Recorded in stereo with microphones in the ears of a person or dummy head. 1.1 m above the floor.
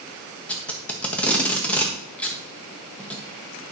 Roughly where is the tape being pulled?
Centre.